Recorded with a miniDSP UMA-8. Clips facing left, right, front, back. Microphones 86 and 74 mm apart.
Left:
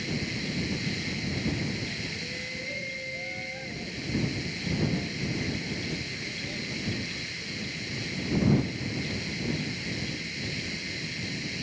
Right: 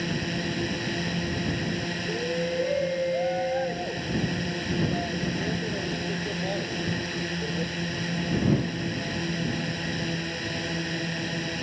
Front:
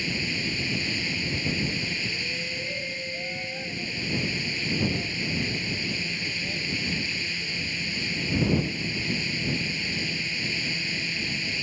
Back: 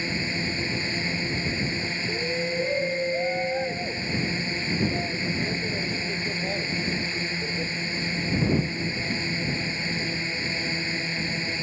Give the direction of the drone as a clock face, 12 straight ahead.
4 o'clock.